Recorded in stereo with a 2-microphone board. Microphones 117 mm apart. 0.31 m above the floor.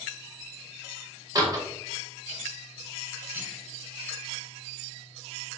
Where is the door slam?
35° right (ahead or behind), 0.6 m.